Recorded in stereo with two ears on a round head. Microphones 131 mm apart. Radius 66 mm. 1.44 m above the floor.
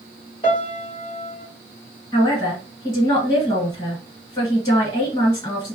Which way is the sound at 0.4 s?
35° left (ahead or behind).